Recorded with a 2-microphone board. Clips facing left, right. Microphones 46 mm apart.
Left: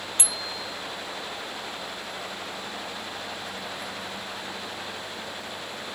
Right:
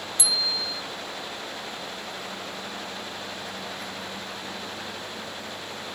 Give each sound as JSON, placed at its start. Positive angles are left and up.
{"t": 0.2, "sound": "a bicycle bell", "side_deg": 45}